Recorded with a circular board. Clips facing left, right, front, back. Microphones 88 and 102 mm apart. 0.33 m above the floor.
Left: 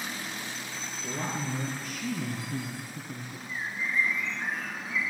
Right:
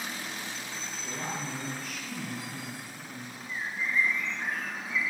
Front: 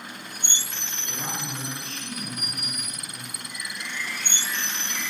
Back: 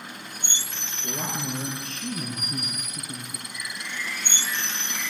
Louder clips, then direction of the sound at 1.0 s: Left 3 dB, back 3 dB; 145° left.